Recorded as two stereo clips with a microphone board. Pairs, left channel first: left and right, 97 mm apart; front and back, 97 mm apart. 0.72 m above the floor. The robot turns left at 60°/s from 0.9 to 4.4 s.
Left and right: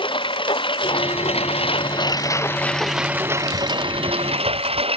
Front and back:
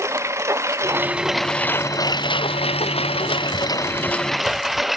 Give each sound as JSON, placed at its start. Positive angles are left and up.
{"t": 0.0, "sound": "a lawn mower", "azimuth_deg": 120}